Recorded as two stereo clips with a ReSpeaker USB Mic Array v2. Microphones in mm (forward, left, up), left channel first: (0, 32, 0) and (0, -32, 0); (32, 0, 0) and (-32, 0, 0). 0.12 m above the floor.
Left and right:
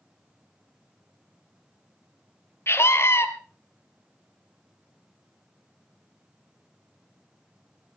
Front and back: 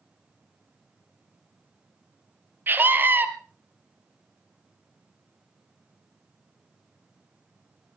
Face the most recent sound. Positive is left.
turn(degrees=130)